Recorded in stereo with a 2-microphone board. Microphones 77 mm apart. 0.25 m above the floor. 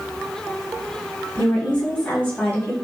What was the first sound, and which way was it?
A woman speaking, 20° left (ahead or behind).